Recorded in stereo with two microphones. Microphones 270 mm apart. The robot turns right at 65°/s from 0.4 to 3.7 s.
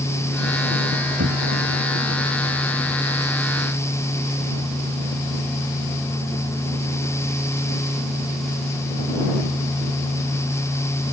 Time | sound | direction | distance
1.2 | knocking | 65° right (ahead or behind) | ?